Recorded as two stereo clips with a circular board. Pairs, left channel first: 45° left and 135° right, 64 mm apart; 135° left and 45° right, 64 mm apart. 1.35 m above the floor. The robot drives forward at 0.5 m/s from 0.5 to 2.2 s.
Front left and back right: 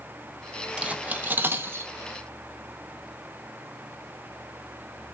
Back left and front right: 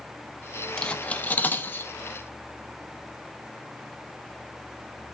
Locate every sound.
0.8 s cutlery clinking: 170° right, 0.6 m; by 1.9 s straight behind, 1.0 m